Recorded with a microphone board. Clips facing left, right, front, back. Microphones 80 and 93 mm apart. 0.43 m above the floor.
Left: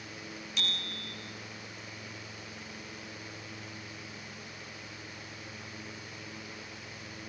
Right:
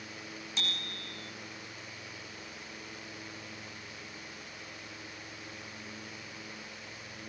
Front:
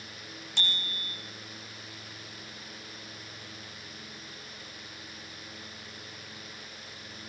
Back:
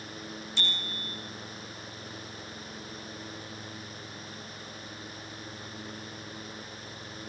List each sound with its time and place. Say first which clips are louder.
0.6 s a bicycle bell: left 1 dB, front 2 dB; 30° right, 9 m